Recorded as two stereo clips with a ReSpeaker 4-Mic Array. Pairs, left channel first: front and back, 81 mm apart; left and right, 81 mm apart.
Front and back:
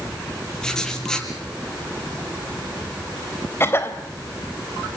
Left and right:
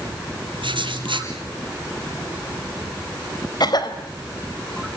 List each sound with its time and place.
0.6 s writing: 80° right, 4 m
3.6 s a cough: 60° left, 3.5 m